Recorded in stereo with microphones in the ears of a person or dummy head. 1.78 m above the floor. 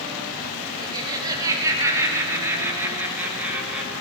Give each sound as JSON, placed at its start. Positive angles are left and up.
{"t": 0.8, "sound": "laughter", "side_deg": -20, "distance_m": 6.0}